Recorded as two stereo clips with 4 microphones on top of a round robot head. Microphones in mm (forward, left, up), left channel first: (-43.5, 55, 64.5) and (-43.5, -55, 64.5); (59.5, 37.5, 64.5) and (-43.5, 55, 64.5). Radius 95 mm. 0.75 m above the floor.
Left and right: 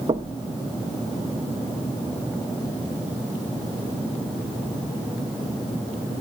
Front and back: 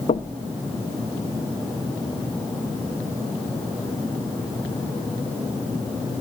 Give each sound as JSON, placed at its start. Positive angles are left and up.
{"t": 0.1, "sound": "knocking", "azimuth_deg": -40, "distance_m": 0.7}